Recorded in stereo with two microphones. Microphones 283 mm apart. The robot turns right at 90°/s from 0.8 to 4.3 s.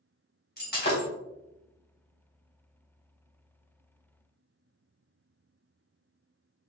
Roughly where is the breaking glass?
Left.